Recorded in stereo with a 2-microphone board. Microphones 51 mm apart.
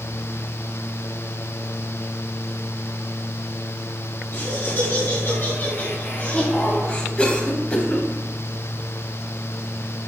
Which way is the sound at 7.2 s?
20° left (ahead or behind).